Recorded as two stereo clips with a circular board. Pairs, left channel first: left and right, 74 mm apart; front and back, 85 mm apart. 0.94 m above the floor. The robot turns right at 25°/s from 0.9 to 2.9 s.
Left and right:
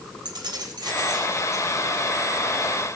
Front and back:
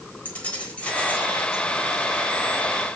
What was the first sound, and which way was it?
Keys jangling, 75° right.